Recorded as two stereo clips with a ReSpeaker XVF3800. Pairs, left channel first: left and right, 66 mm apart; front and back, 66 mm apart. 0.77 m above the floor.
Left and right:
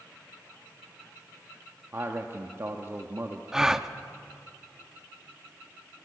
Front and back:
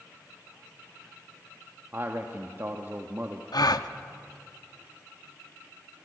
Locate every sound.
1.9 s a man speaking: 130° right, 1.2 m
3.5 s a gasp: 5° right, 0.7 m